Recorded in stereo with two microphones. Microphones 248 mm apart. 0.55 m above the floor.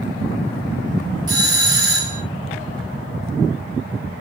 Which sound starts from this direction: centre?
A doorbell, at 1.3 s.